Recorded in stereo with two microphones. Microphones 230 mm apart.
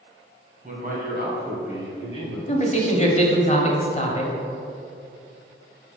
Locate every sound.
0.6 s a man speaking: 35° right (ahead or behind), 2 m; by 2.4 s 60° right (ahead or behind), 3 m
2.5 s a man speaking: 30° left (ahead or behind), 1.2 m